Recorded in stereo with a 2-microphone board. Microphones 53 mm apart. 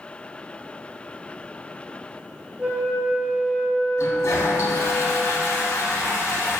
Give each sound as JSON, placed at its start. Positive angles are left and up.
{"t": 2.6, "sound": "a flute", "side_deg": -20, "distance_m": 0.7}
{"t": 4.0, "sound": "a toilet flushing", "side_deg": 70, "distance_m": 0.7}